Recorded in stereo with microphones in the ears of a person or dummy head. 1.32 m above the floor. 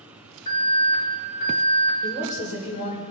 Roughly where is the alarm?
Left.